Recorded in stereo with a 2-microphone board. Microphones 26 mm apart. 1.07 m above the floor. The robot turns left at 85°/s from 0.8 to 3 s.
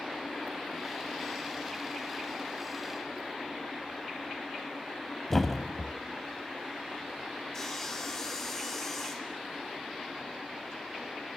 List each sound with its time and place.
5.3 s a thud: 10° left (ahead or behind), 1.6 m
7.5 s sawing: 15° left (ahead or behind), 4 m